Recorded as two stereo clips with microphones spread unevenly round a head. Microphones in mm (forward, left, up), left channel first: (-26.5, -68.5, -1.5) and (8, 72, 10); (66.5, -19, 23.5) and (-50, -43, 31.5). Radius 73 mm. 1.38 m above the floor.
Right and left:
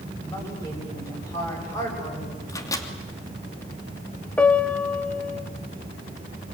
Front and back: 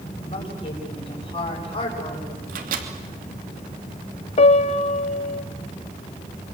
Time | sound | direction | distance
0.2 | a woman speaking | 30° right | 8.5 m
2.5 | a microwave | 170° right | 2.5 m
4.4 | a piano | 20° right | 1.0 m